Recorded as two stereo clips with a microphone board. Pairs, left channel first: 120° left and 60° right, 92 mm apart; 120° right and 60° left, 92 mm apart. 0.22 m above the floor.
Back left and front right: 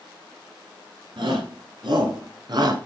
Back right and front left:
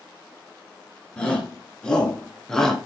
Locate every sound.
1.2 s a shout: 40° right, 4 m; by 2.8 s 35° right, 3 m